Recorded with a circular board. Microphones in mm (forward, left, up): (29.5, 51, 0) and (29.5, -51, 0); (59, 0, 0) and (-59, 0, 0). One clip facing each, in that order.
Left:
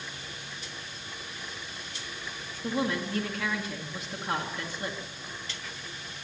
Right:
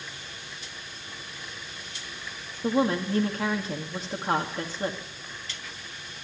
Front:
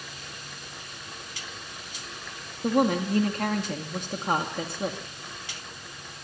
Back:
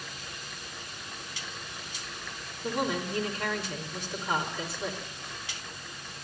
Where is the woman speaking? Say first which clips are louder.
Right 5 dB, front 7 dB; 35° right, 1.9 m.